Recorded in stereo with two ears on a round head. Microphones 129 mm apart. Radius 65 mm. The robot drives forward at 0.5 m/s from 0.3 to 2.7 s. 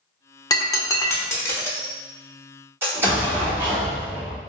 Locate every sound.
0.5 s breaking glass: 25° left (ahead or behind), 0.6 m; by 1.9 s 15° left (ahead or behind), 1.1 m
2.8 s an explosion: 15° right (ahead or behind), 1.2 m